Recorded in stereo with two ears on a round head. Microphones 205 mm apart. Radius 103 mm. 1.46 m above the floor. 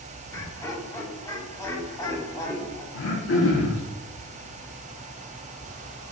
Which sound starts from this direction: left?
Throat clearing, at 2.9 s.